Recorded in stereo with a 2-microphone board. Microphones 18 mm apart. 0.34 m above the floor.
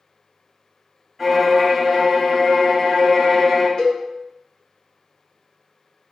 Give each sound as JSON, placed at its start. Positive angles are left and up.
{"t": 1.2, "sound": "a violin", "side_deg": 0, "distance_m": 1.0}
{"t": 3.8, "sound": "a cowbell", "side_deg": 50, "distance_m": 0.7}